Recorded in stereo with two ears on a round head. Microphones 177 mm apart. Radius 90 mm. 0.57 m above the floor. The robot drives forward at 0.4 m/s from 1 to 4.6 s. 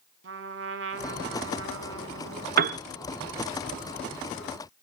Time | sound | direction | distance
0.2 | a trumpet | 60° right (ahead or behind) | 1.6 m
2.6 | a piano | 50° right (ahead or behind) | 0.7 m